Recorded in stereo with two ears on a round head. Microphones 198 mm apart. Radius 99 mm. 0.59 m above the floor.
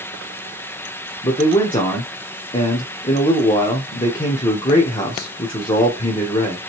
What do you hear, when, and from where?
1.2 s a man speaking: 20° left (ahead or behind), 1.1 m